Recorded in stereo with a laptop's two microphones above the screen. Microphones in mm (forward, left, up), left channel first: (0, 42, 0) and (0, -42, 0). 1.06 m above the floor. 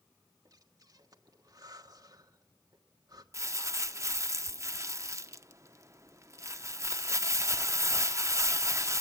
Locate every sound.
0.5 s breathing: 45° right (ahead or behind), 1.5 m
3.3 s crumpling: 35° right (ahead or behind), 0.7 m